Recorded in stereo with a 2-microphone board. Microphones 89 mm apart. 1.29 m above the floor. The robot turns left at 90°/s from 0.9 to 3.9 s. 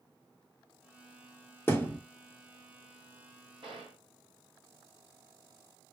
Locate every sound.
1.7 s a thud: 25° left (ahead or behind), 0.9 m; by 2.0 s 20° left (ahead or behind), 0.9 m
3.6 s a gunshot: 65° right (ahead or behind), 1.5 m; by 4.0 s 80° right, 1.5 m